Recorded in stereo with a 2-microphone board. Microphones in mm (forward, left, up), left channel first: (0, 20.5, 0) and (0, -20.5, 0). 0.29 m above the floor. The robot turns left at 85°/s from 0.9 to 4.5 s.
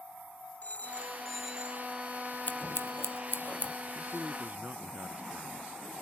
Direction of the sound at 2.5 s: 45° left (ahead or behind).